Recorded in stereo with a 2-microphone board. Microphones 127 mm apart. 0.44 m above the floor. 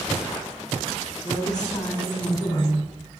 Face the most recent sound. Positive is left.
turn(degrees=35)  # may be behind; listen again after turning